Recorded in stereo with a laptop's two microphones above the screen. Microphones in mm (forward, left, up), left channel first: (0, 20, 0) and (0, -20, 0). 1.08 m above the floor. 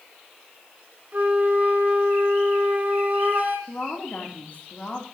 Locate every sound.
1.1 s a flute: 50° right (ahead or behind), 2.5 m
3.7 s a woman speaking: 40° left (ahead or behind), 3 m